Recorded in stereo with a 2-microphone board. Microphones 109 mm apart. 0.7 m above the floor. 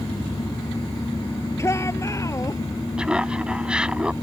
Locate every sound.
1.6 s a shout: 25° left (ahead or behind); by 2.6 s 30° left (ahead or behind)
3.0 s laughter: 10° right (ahead or behind)